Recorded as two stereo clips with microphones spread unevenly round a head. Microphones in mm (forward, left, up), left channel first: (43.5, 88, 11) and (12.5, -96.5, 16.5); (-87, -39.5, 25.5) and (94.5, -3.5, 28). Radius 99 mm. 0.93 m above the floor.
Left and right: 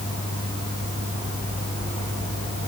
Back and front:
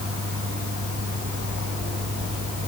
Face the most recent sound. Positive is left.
turn(degrees=35)